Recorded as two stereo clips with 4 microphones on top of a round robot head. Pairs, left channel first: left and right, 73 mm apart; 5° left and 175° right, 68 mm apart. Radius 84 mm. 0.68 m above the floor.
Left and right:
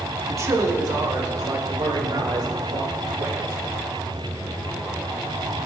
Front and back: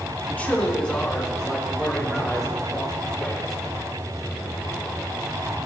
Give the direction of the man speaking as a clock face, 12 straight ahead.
2 o'clock.